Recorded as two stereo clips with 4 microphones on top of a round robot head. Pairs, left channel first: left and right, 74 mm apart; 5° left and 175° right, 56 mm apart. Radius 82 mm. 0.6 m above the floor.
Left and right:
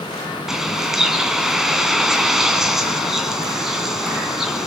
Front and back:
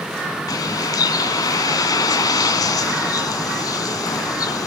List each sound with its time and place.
0.5 s a bird: 5° right, 2.5 m